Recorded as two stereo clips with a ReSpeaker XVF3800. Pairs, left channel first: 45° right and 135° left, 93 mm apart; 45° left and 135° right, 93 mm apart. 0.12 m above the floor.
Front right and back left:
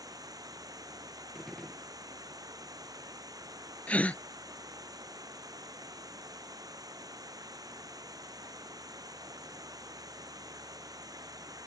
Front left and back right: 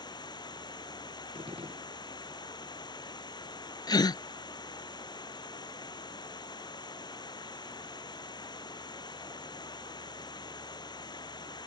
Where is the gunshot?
130° right.